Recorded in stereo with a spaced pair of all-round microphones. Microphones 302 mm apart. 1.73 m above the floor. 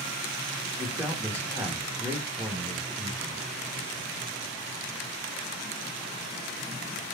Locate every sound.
0.8 s a man speaking: 10° right (ahead or behind), 2.5 m